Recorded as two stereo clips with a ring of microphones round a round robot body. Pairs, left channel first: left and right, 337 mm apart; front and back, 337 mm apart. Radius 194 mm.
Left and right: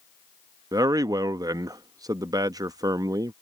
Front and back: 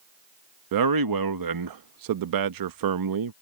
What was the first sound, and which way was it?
A man speaking, 170° right.